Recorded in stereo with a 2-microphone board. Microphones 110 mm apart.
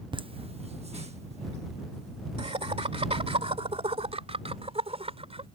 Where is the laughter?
50° right (ahead or behind); by 5.5 s 70° right (ahead or behind).